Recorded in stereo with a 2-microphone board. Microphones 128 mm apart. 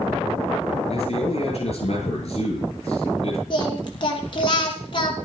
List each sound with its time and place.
0.9 s a man speaking: 55° left (ahead or behind), 9 m
3.5 s singing: 40° left (ahead or behind), 2.5 m